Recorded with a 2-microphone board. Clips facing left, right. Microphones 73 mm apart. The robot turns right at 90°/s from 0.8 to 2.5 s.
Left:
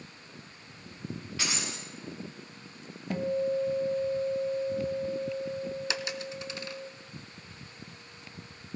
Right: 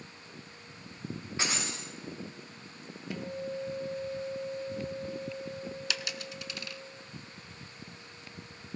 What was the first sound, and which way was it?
Breaking glass, 155° right.